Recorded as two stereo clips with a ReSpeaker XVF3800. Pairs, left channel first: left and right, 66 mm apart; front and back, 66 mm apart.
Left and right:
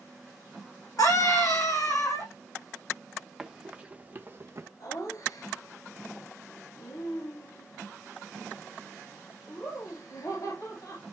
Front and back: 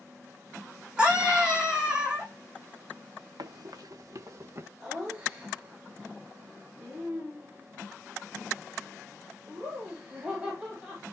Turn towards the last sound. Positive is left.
turn(degrees=115)